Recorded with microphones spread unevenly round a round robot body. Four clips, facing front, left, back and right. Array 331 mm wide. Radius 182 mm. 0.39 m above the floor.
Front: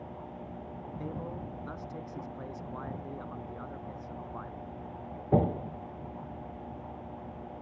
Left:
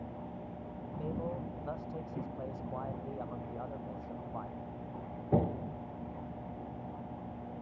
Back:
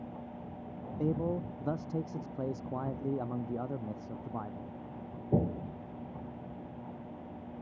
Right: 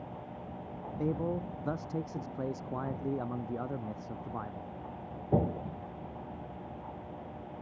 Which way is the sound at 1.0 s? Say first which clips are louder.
Right 6 dB, back 9 dB; 155° right.